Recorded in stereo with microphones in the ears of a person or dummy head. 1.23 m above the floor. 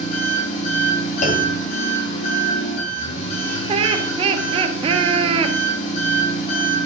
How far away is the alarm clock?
No alarm clock in this recording.